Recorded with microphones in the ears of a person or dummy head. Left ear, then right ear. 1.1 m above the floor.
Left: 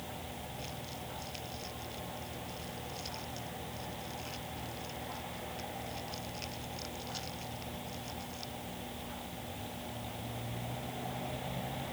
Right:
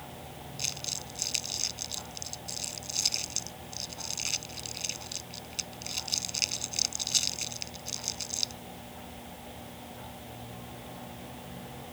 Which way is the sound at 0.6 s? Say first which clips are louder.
Right 8 dB; 75° right (ahead or behind).